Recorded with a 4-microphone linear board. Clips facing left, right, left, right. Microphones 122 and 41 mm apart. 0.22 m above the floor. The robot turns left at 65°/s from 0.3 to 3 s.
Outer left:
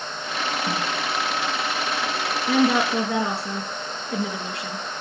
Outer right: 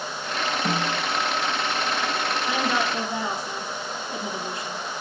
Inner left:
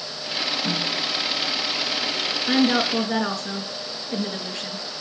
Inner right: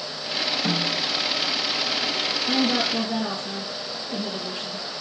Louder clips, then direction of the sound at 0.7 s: Outer right 1 dB, inner right 1 dB; 80° right.